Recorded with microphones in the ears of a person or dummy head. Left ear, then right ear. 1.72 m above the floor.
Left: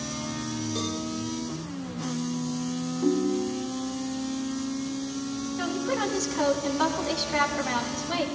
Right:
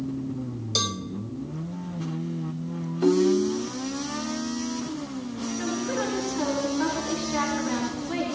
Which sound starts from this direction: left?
A woman speaking, at 5.6 s.